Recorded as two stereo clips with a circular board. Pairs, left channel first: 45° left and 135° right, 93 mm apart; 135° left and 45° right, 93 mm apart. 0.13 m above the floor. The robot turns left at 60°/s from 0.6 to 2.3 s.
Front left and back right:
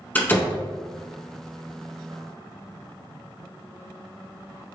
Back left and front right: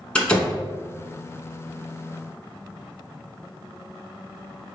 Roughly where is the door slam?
Left.